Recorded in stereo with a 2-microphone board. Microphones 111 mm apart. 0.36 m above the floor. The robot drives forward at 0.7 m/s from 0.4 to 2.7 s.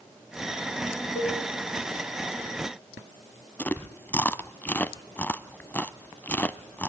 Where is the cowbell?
65° left (ahead or behind), 9.5 m; by 1.4 s 60° left (ahead or behind), 10 m.